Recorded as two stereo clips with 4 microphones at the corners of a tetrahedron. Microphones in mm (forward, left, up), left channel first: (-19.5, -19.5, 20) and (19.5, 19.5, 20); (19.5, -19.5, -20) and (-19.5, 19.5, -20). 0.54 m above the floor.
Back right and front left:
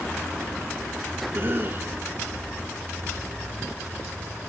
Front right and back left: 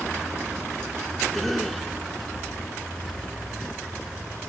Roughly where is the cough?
Ahead left.